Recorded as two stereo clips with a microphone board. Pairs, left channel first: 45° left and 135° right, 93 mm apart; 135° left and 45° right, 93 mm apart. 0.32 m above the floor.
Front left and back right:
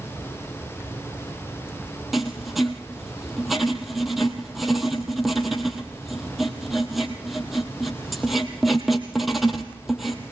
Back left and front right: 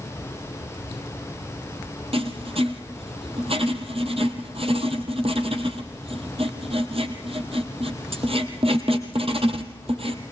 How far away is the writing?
About 1.8 m.